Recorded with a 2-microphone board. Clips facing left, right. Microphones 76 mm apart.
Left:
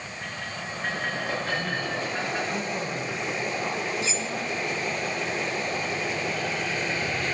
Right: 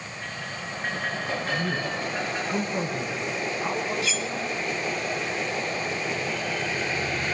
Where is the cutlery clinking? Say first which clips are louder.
Right 1 dB; 25° left (ahead or behind), 0.6 m.